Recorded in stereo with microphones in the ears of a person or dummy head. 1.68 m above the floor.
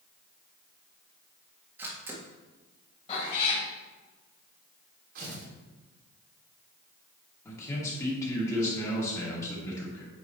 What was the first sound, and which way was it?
A camera shutter, 10° right (ahead or behind).